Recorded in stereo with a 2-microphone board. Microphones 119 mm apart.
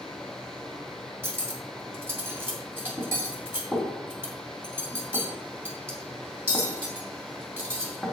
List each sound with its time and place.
1.2 s cutlery clinking: 20° right (ahead or behind), 2 m